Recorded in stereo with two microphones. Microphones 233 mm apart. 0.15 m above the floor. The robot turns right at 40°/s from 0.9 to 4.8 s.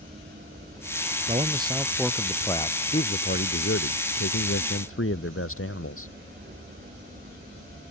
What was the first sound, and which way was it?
A man speaking, 30° right.